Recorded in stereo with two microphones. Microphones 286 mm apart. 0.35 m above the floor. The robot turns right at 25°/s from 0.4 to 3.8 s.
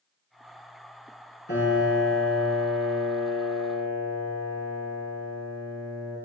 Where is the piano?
40° left, 5 m; by 6.2 s 95° left, 5 m.